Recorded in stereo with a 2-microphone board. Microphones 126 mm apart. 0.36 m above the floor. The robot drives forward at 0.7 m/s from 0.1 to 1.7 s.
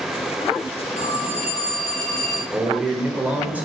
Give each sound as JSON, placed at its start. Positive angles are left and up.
{"t": 1.0, "sound": "a phone ringing", "side_deg": 80, "distance_m": 2.5}
{"t": 2.5, "sound": "a man speaking", "side_deg": -15, "distance_m": 1.5}